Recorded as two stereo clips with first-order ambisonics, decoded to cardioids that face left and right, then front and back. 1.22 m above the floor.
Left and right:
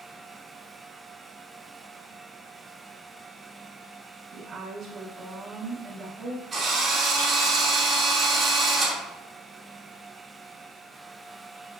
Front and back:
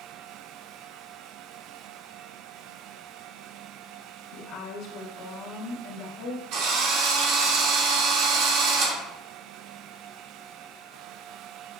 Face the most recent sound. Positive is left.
turn(degrees=-160)